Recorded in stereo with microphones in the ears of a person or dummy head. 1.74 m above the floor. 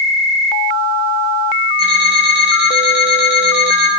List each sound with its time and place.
1.8 s an alarm clock: 60° right (ahead or behind), 7.5 m